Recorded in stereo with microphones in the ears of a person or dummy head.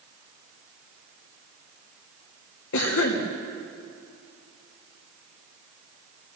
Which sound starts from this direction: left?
A cough, at 2.7 s.